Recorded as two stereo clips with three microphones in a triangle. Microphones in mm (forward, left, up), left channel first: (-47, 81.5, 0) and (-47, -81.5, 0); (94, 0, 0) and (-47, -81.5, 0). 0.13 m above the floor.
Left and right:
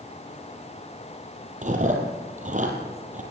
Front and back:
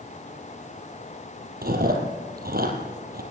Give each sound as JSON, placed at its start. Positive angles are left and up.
{"t": 1.6, "sound": "chewing", "azimuth_deg": -130, "distance_m": 4.0}